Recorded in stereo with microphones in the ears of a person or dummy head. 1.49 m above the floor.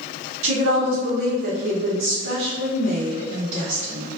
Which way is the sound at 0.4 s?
65° right (ahead or behind).